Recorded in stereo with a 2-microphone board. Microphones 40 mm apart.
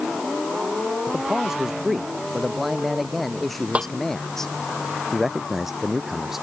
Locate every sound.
1.1 s a man speaking: 10° right (ahead or behind); by 4.5 s 10° left (ahead or behind)
3.8 s a snare drum: 30° right (ahead or behind)
5.1 s a man speaking: 5° right (ahead or behind)